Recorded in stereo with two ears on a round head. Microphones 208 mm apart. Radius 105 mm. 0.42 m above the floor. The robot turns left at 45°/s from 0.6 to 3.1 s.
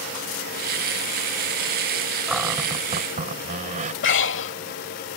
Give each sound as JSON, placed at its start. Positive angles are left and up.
{"t": 2.3, "sound": "a cupboard door", "azimuth_deg": 0}
{"t": 4.0, "sound": "breathing", "side_deg": 55}